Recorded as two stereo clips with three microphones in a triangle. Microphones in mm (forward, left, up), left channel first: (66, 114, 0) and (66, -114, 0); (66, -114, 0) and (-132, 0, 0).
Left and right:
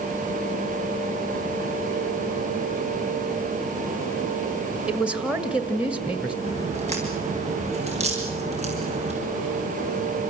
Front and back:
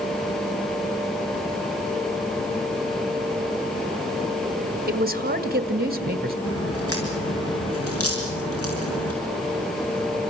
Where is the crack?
30° right, 5.5 m.